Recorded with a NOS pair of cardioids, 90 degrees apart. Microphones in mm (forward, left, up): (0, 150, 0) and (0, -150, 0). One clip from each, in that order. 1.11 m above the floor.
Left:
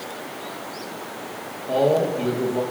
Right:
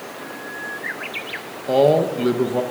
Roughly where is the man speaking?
Ahead right.